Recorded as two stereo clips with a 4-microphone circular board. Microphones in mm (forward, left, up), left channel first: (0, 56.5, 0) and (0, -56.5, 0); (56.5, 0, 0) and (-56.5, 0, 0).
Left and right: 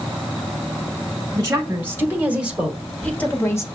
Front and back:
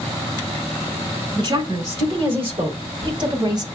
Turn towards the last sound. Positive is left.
turn(degrees=145)